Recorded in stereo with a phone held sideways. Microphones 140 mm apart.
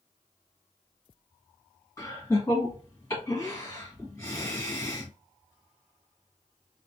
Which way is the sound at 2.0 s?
25° left (ahead or behind).